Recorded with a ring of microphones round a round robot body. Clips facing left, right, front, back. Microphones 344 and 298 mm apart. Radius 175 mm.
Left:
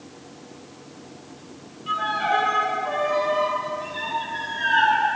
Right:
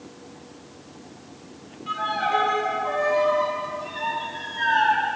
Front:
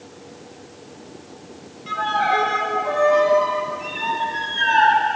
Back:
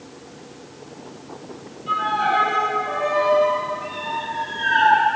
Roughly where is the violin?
Ahead.